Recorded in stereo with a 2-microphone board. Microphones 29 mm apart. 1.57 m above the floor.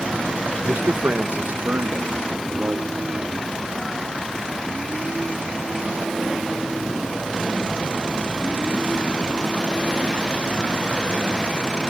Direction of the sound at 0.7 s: 75° right (ahead or behind).